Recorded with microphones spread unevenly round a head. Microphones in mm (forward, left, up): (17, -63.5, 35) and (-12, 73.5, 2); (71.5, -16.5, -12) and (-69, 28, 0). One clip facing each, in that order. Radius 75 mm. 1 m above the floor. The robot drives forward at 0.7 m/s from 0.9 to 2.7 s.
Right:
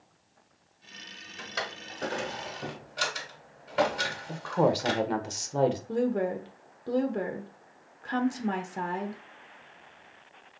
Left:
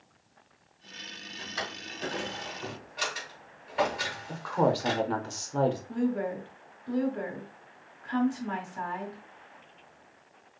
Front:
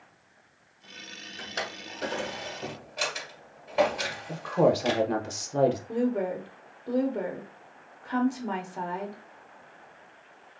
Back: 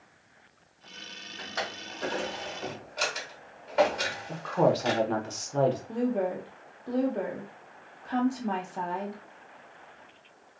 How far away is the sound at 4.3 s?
About 0.5 m.